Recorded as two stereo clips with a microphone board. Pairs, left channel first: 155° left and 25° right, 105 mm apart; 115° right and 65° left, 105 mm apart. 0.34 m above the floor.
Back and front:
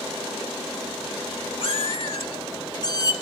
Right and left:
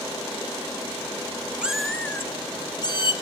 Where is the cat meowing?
145° left, 0.6 m; by 3.1 s 150° right, 1.0 m.